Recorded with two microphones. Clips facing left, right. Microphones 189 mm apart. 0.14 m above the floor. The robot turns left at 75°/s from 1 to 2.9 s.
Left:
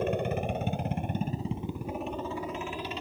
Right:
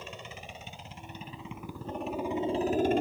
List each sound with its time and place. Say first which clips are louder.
0.0 s a helicopter: left 16 dB; 80° left; by 3.0 s 65° right